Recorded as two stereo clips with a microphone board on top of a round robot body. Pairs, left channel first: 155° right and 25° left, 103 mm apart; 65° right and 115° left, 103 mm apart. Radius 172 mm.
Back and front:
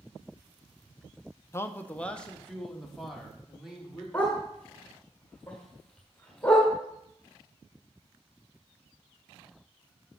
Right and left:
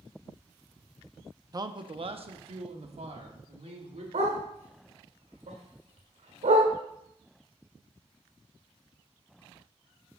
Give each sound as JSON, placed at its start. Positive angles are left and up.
{"t": 1.5, "sound": "a man speaking", "azimuth_deg": 150, "distance_m": 0.7}
{"t": 4.1, "sound": "a dog barking", "azimuth_deg": 125, "distance_m": 1.8}